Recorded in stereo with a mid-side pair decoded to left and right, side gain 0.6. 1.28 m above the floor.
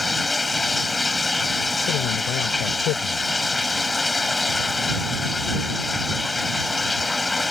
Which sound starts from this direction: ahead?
Running water, at 0.0 s.